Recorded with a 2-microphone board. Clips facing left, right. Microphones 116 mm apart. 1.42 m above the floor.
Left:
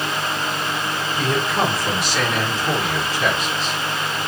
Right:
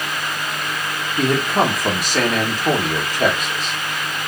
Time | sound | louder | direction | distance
1.2 | a man speaking | right 4 dB | 50° right (ahead or behind) | 1.6 m